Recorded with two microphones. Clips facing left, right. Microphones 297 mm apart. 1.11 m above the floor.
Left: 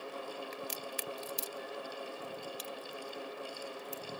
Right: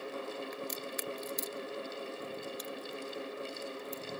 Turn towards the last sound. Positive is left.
turn(degrees=40)  # may be behind; listen again after turning